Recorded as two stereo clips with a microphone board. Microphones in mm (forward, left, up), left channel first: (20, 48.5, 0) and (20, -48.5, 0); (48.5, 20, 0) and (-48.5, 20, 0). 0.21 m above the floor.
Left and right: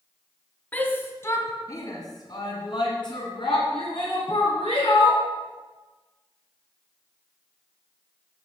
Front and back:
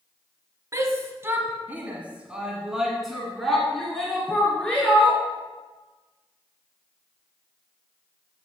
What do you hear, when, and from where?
0.7 s a shout: 150° left, 1.5 m; by 5.2 s 80° left, 3 m